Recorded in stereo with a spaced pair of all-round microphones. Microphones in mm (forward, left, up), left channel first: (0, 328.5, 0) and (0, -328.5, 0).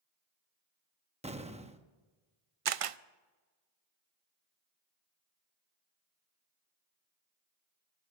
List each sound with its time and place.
1.2 s an explosion: 10° right (ahead or behind), 0.8 m
2.6 s a camera shutter: 60° right (ahead or behind), 0.5 m